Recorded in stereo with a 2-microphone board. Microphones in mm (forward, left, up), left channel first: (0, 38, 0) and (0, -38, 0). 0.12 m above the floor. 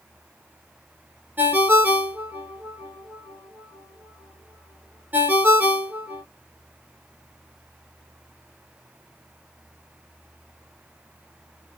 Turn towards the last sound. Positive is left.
turn(degrees=-25)  # may be behind; listen again after turning